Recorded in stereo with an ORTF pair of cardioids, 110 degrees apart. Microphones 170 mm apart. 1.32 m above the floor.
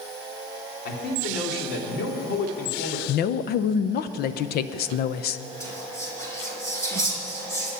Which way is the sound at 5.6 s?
15° left.